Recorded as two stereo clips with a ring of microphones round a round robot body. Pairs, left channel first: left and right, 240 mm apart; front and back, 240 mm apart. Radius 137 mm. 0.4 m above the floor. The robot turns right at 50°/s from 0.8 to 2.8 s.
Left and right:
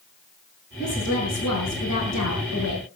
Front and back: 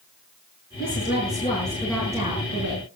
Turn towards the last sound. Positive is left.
turn(degrees=135)